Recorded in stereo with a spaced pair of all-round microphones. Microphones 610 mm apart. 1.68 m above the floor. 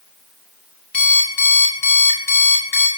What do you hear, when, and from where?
0.9 s an alarm clock: 45° left (ahead or behind), 7.5 m